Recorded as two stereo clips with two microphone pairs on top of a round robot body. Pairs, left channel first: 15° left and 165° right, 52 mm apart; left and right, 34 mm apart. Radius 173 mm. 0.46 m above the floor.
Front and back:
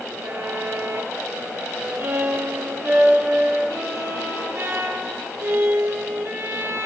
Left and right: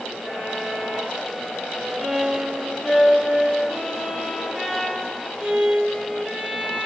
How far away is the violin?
About 5.5 m.